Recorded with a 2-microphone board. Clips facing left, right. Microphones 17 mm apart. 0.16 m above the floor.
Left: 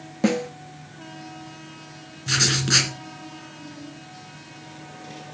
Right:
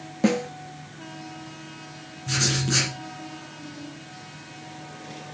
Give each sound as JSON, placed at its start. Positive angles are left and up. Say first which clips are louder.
{"t": 0.2, "sound": "a snare drum", "louder": "even", "side_deg": 5, "distance_m": 0.6}
{"t": 2.3, "sound": "writing", "louder": "left 4 dB", "side_deg": 35, "distance_m": 2.5}